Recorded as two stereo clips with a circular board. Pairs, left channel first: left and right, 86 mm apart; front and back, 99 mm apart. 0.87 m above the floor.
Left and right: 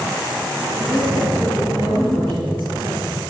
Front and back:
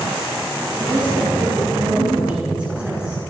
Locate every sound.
0.8 s a woman speaking: 130° right, 7.5 m; by 3.2 s 105° right, 8.5 m